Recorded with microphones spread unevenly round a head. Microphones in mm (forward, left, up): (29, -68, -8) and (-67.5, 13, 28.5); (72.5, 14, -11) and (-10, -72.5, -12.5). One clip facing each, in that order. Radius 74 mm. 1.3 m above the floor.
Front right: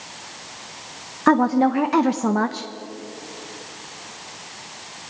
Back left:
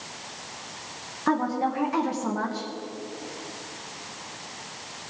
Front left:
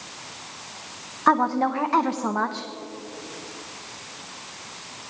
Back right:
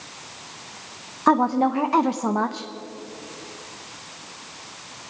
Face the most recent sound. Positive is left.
turn(degrees=-60)